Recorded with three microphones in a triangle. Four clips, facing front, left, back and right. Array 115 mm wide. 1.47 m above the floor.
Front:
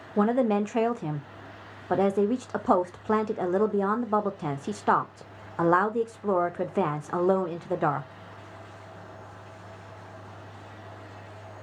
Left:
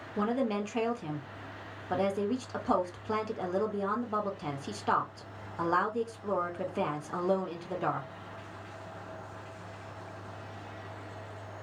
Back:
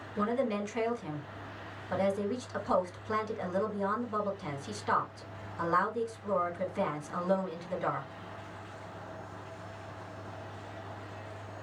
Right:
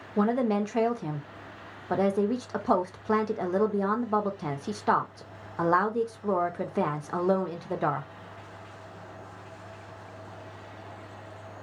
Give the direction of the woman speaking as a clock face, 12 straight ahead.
1 o'clock.